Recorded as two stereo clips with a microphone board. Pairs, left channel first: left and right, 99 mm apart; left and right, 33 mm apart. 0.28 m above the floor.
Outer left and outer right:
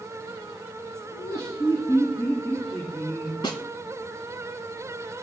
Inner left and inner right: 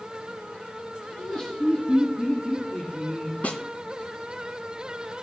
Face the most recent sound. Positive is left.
turn(degrees=55)  # may be behind; listen again after turning